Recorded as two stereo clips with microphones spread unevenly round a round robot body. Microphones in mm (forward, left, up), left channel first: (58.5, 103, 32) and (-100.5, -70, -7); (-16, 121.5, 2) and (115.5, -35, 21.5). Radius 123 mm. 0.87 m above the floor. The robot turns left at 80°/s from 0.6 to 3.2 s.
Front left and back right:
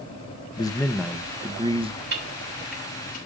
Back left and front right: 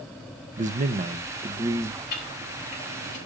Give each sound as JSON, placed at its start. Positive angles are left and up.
{"t": 0.6, "sound": "a man speaking", "azimuth_deg": -25, "distance_m": 0.9}
{"t": 2.1, "sound": "ticking", "azimuth_deg": -175, "distance_m": 6.5}